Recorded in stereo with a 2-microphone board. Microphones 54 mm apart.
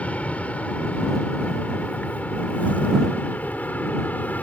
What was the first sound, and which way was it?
An aircraft, 25° left (ahead or behind).